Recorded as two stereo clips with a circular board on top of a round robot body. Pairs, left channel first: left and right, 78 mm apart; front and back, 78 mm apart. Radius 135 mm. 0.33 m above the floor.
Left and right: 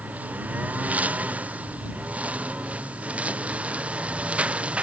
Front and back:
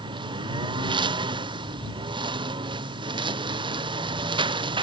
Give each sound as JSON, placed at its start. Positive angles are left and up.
{"t": 0.0, "sound": "a lawn mower", "azimuth_deg": -160}